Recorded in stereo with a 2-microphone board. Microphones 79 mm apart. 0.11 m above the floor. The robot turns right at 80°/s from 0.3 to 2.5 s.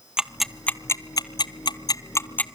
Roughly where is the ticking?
Centre.